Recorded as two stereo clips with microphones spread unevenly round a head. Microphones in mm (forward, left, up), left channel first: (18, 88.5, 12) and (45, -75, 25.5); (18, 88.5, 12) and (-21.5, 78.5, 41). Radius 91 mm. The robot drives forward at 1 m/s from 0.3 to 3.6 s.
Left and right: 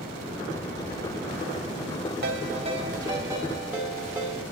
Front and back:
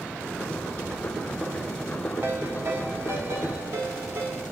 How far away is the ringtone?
About 0.8 m.